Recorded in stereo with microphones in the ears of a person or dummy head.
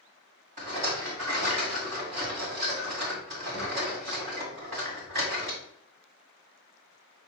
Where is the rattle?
40° right (ahead or behind), 2 m.